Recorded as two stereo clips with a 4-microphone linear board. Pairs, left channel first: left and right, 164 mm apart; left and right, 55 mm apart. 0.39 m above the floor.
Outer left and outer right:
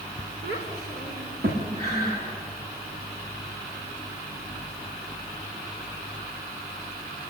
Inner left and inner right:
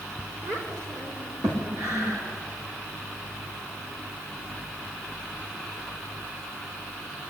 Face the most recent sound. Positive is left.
turn(degrees=-75)  # may be behind; listen again after turning